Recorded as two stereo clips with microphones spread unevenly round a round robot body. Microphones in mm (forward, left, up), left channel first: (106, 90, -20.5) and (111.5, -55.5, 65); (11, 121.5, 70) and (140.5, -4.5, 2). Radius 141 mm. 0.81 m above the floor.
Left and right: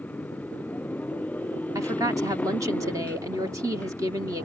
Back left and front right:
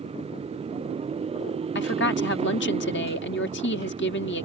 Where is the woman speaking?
175° right.